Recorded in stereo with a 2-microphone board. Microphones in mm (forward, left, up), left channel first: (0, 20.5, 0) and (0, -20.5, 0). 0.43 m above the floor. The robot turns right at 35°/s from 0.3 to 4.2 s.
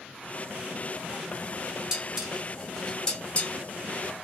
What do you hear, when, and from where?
1.9 s dishes clattering: 20° right (ahead or behind), 1.9 m; by 3.5 s 35° left (ahead or behind), 1.9 m